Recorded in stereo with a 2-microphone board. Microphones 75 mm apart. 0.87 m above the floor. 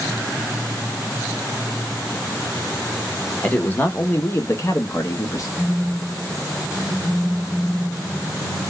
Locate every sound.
3.4 s a man speaking: 20° left (ahead or behind), 1.1 m; by 5.5 s 45° left (ahead or behind), 1.0 m
5.6 s a phone buzzing: 10° left (ahead or behind), 0.6 m